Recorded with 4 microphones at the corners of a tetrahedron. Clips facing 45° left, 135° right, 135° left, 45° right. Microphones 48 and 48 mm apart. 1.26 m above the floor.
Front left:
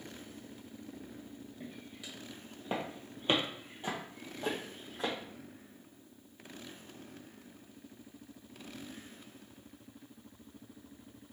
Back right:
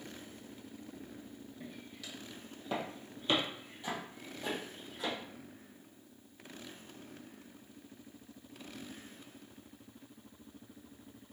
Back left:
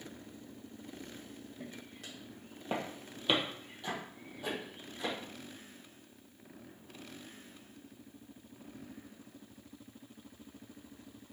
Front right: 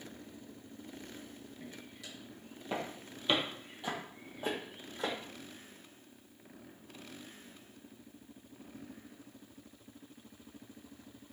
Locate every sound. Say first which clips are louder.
1.6 s footsteps: even, back left 2 dB; 120° left, 2.5 m; by 5.1 s 5° right, 2.5 m